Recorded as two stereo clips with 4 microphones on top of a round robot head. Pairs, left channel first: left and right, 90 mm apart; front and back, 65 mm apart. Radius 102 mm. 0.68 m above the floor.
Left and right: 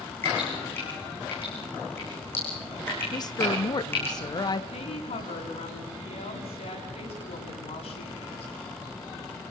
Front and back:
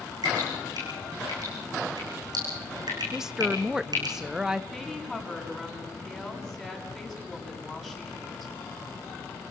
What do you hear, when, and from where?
0.2 s dripping: 160° left, 7.5 m
3.1 s a woman speaking: 100° left, 0.9 m
4.7 s a woman speaking: 95° left, 7 m